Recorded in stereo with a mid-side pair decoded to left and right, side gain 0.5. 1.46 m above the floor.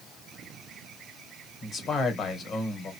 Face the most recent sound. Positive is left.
turn(degrees=50)